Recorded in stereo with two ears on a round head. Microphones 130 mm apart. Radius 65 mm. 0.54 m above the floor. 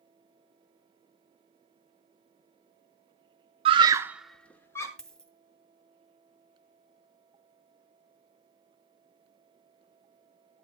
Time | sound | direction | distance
3.6 | a scream | 40° right (ahead or behind) | 0.7 m
5.0 | a dropped coin | 5° left (ahead or behind) | 1.9 m